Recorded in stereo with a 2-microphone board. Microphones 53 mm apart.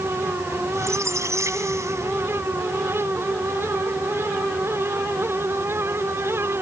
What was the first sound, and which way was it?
A squeak, 60° right (ahead or behind).